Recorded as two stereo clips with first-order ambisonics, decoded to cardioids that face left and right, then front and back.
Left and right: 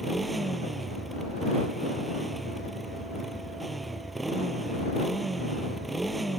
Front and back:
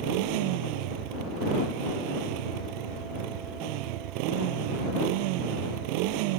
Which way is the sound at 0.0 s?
170° right.